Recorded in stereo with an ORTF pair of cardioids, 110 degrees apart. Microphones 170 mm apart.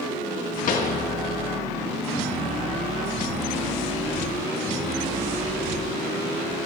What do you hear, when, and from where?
0.7 s a pop: 55° left, 1.4 m